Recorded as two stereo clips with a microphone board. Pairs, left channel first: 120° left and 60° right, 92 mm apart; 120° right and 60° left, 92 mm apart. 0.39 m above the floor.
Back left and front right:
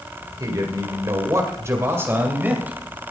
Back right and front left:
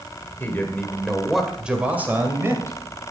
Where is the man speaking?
65° right, 1.7 m; by 2.8 s 10° left, 2 m.